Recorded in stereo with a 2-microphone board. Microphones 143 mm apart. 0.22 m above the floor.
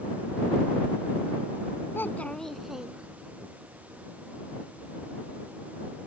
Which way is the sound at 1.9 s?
15° left (ahead or behind).